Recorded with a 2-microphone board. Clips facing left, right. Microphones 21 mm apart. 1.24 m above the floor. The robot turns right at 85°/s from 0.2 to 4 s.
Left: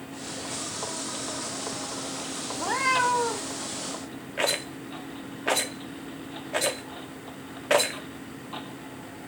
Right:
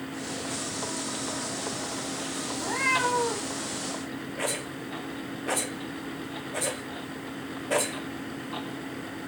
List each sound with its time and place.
2.5 s a cat meowing: 110° left, 1.4 m; by 3.5 s 160° right, 1.4 m
4.4 s a rattle: 50° left (ahead or behind), 0.9 m